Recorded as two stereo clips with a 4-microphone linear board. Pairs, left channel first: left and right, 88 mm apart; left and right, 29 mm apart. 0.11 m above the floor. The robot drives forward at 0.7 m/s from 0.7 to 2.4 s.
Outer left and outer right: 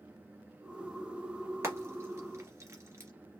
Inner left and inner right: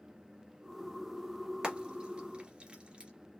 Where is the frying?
35° right (ahead or behind), 2.5 m.